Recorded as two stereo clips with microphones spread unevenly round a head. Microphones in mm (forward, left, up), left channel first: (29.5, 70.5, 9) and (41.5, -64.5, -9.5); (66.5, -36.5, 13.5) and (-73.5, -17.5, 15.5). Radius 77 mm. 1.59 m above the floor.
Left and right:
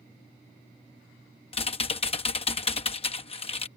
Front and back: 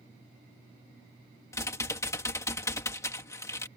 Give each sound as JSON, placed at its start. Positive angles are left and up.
{"t": 1.5, "sound": "typing on a keyboard", "azimuth_deg": 65}